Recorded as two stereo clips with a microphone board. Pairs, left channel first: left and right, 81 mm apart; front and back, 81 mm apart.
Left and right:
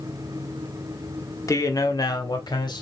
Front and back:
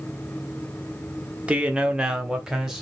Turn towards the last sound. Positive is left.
turn(degrees=95)